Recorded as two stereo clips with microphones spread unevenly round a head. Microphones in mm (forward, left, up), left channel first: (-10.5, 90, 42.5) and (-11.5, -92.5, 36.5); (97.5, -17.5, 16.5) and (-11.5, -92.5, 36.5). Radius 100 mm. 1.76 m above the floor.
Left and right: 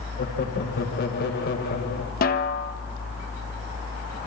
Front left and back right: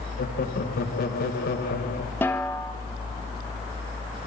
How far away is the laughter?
About 2.5 m.